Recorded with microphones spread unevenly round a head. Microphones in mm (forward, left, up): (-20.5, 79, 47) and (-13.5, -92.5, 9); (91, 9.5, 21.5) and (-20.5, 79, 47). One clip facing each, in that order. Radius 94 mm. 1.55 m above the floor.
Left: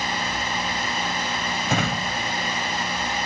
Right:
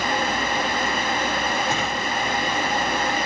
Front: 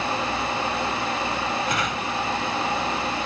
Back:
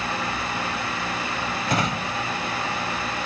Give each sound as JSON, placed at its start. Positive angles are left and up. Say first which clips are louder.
{"t": 1.7, "sound": "a drawer", "louder": "even, back 1 dB", "azimuth_deg": 100}